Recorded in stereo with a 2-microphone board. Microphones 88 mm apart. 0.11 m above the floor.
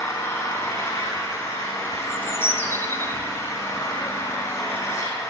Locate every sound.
0.0 s an engine running: 35° left (ahead or behind), 4 m
2.0 s a bird: 25° left (ahead or behind), 1.9 m